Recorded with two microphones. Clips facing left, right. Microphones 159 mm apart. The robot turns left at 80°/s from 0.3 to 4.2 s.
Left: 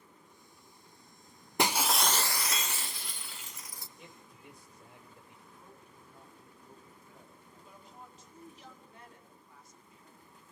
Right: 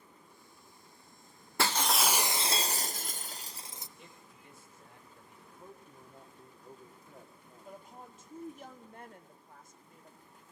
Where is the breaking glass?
30° left, 0.8 m; by 3.9 s 155° right, 0.8 m.